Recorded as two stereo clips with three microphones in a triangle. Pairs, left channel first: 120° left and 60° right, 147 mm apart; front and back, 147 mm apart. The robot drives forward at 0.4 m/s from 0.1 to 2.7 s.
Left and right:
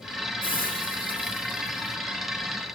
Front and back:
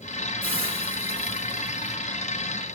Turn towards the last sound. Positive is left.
turn(degrees=145)